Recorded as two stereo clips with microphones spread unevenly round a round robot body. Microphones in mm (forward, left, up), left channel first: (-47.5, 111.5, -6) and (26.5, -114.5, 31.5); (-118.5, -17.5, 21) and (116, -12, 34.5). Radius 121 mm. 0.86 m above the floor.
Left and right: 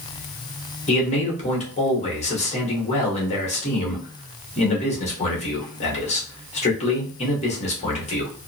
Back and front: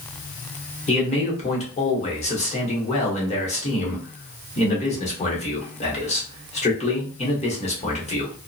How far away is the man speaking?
About 1.1 m.